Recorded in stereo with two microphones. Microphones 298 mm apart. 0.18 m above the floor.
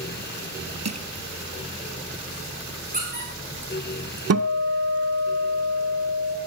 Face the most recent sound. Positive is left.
turn(degrees=-55)  # may be behind; listen again after turning